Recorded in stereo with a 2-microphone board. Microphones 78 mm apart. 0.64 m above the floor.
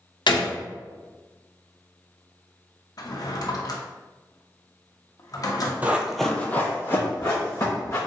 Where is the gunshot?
75° left (ahead or behind), 0.6 m.